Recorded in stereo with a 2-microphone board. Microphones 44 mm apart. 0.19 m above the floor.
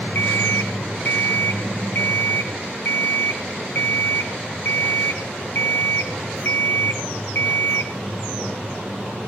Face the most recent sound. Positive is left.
turn(degrees=65)  # may be behind; listen again after turning